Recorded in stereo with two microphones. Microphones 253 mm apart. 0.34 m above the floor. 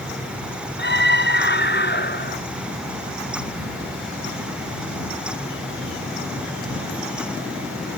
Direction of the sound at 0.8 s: 45° left (ahead or behind).